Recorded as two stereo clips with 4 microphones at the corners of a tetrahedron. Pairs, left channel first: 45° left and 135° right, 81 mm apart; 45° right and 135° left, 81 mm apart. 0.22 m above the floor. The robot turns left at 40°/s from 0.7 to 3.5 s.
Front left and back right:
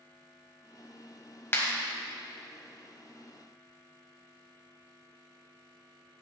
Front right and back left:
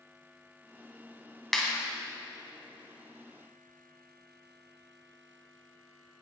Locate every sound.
1.5 s a clap: 40° left, 1.2 m; by 1.7 s 30° left, 1.2 m